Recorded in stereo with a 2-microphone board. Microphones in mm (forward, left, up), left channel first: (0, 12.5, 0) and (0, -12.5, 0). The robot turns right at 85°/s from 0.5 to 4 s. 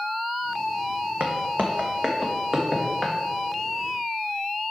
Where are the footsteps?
70° right (ahead or behind), 1.0 m; by 3.1 s 25° left (ahead or behind), 1.7 m.